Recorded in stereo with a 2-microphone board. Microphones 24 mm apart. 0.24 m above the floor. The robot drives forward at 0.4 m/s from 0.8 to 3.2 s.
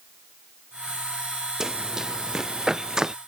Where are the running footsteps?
25° right (ahead or behind); by 3.1 s 30° right (ahead or behind).